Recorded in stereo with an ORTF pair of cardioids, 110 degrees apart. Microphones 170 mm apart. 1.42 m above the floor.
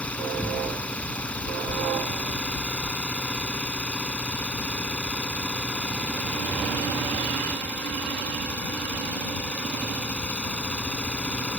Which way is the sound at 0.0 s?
5° left.